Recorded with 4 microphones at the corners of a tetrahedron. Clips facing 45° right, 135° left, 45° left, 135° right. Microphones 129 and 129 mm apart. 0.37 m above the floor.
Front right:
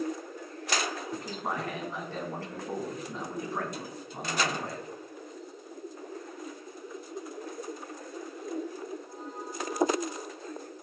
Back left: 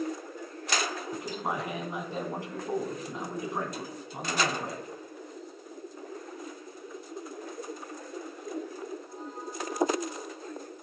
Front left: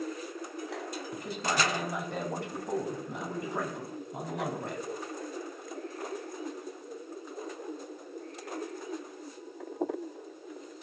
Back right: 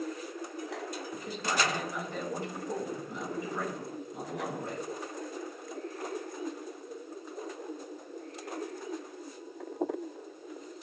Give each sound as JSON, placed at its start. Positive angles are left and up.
{"t": 1.1, "sound": "a man speaking", "azimuth_deg": 65, "distance_m": 2.5}